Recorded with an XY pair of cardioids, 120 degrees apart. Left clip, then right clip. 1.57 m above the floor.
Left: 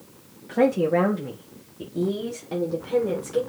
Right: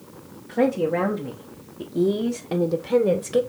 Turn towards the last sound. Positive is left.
turn(degrees=-60)